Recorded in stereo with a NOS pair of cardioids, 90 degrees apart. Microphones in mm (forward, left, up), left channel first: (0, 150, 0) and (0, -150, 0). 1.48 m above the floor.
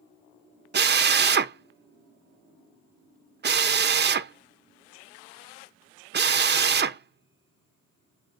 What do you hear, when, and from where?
0.7 s a drill: 35° right, 0.6 m